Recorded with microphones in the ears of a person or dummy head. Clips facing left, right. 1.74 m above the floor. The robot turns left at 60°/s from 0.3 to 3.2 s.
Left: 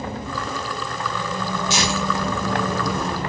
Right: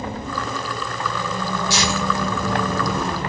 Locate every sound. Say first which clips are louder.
1.7 s tearing paper: even; 15° left (ahead or behind), 1.1 m; by 3.1 s 80° left, 1.1 m